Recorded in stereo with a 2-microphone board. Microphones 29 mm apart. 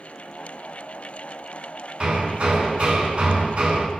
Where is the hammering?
45° right (ahead or behind), 7 m.